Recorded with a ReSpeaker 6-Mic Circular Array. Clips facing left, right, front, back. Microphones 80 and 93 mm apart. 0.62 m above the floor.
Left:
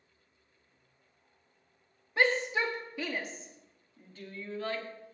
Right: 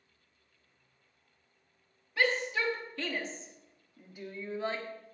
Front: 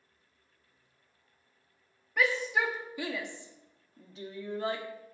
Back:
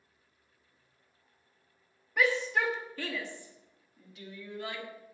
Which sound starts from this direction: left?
A shout, at 2.2 s.